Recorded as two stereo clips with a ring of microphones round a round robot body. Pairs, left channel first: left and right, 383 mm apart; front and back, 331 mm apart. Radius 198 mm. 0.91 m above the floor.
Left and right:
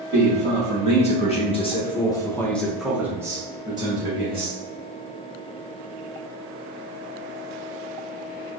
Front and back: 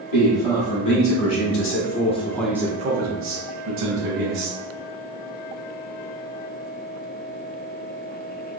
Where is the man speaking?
20° left, 1.6 m; by 4.6 s 165° right, 1.4 m.